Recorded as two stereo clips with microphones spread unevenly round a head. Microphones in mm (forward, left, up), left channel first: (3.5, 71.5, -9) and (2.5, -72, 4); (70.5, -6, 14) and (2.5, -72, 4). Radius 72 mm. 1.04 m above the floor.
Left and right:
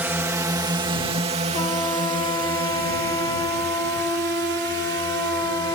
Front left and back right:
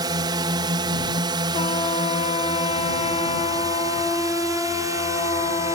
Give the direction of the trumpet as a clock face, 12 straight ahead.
11 o'clock.